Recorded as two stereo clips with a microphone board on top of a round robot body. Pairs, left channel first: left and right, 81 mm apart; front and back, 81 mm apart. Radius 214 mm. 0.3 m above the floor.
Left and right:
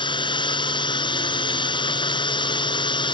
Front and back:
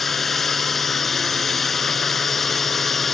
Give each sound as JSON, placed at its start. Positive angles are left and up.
{"t": 0.0, "sound": "a drone", "azimuth_deg": 90}